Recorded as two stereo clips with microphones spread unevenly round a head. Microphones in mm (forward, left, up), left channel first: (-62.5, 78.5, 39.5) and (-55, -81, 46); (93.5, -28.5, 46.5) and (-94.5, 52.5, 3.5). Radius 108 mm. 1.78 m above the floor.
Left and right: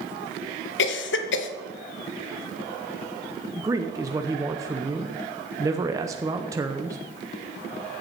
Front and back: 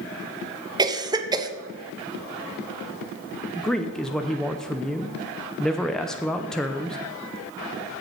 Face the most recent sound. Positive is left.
turn(degrees=-65)